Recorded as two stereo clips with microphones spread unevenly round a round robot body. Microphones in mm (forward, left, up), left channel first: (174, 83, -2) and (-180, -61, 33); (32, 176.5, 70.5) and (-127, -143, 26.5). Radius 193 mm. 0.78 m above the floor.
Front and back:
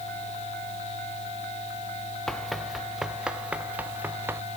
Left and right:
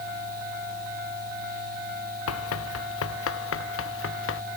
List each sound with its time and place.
2.3 s running footsteps: 110° left; by 4.4 s 120° left